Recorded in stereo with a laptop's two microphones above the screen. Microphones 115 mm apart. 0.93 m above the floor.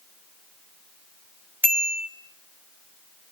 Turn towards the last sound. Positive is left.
turn(degrees=-15)  # may be behind; listen again after turning